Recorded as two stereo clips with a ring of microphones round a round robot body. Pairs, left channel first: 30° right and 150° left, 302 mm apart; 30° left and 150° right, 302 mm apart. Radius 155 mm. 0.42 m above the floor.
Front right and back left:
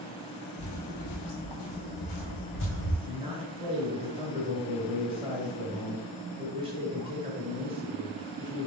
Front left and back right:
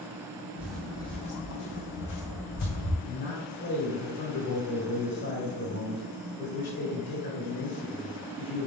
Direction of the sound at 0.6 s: 65° right.